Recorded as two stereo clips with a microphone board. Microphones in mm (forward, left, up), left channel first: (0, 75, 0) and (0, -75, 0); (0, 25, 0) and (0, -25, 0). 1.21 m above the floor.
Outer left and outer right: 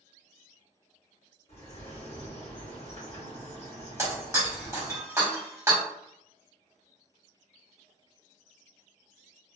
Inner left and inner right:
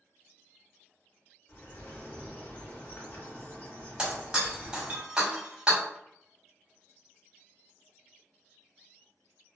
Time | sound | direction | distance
1.5 | a bird | 45° left (ahead or behind) | 1.0 m
4.0 | breaking glass | 20° right (ahead or behind) | 1.1 m